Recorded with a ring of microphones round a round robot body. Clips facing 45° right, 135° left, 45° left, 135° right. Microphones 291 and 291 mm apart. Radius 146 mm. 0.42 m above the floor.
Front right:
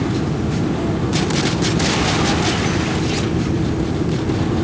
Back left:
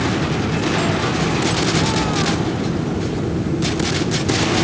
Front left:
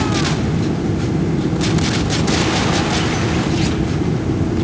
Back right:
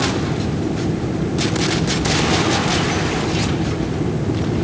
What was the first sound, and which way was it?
Only background noise.